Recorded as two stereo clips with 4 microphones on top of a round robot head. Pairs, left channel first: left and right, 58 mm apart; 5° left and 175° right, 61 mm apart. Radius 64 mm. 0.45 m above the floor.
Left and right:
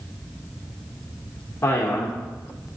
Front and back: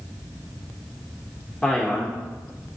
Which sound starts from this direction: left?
A man speaking, at 1.6 s.